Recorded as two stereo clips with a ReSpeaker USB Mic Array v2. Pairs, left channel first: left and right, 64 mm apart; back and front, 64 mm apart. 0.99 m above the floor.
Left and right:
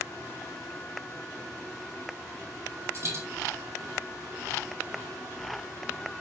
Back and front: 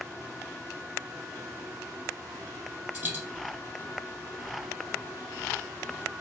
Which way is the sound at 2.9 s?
50° right.